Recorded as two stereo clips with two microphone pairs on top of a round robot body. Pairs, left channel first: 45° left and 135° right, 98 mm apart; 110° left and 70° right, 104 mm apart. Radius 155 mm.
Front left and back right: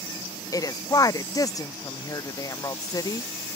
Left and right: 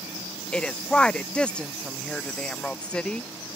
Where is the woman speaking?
40° left.